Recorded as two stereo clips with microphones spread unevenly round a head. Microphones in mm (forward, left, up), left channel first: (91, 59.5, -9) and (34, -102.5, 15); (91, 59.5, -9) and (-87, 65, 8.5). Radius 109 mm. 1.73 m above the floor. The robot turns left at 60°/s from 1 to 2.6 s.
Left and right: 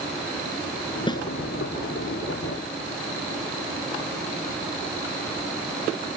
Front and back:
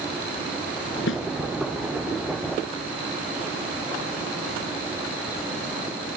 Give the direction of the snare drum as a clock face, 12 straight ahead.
12 o'clock.